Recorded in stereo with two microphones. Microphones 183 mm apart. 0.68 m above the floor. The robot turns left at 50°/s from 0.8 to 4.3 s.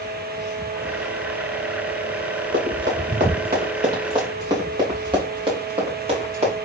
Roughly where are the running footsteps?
Right.